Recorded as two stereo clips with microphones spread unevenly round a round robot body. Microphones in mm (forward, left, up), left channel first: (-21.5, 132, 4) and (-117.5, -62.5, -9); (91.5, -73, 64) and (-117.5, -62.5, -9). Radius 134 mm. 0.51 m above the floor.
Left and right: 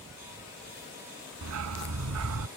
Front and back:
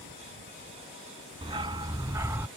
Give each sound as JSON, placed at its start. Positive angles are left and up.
{"t": 1.4, "sound": "a dog barking", "azimuth_deg": -115}